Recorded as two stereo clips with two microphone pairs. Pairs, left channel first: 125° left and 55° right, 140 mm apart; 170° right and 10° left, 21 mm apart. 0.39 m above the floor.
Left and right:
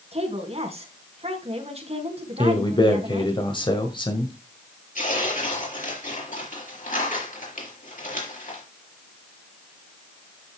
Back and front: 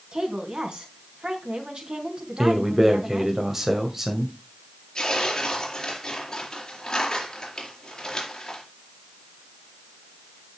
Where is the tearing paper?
130° left, 4 m.